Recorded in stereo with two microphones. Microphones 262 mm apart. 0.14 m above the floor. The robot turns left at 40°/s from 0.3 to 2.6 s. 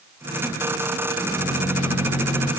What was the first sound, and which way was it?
A microwave, 55° left.